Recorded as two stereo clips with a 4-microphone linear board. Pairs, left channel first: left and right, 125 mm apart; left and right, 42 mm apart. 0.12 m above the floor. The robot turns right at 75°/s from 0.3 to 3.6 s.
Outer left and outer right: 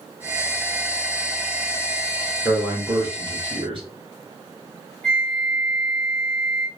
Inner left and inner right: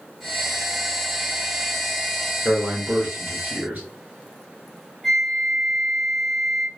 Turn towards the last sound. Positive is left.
turn(degrees=5)  # may be behind; listen again after turning